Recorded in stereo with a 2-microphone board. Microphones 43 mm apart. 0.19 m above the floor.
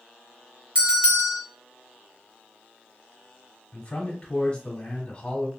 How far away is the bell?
About 2.5 m.